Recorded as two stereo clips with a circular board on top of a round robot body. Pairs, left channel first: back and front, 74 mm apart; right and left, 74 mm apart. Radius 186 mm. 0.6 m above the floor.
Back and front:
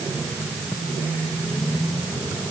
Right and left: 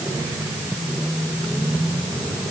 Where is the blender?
No blender in this recording.